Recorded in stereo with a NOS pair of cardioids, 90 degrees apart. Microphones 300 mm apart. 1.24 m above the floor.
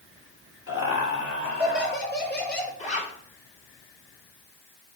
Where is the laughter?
45° left, 4 m; by 2.7 s 30° left, 5 m.